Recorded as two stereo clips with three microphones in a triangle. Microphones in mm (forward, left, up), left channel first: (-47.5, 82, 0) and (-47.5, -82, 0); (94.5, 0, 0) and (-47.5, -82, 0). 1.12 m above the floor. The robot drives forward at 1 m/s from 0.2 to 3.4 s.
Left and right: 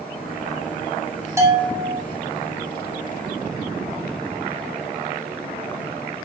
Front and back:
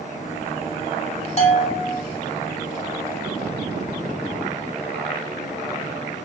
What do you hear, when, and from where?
1.4 s a bell: 15° right, 3.5 m; by 2.0 s 20° right, 3 m